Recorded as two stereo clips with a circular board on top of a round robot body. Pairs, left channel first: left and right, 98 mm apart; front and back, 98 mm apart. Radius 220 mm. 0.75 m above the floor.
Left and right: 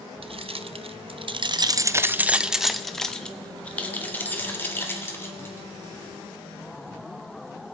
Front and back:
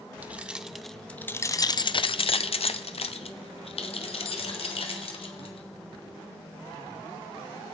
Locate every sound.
0.2 s keys jangling: 105° right, 0.9 m; by 5.7 s 25° left, 2 m